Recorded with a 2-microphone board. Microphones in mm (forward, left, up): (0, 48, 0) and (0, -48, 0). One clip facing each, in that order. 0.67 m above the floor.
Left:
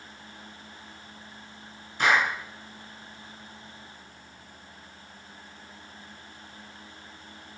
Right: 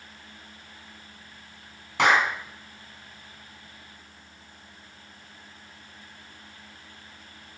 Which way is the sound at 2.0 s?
80° right.